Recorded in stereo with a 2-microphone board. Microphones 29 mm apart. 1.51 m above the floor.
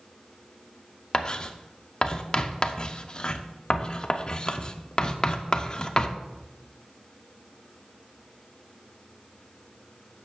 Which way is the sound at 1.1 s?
30° left (ahead or behind).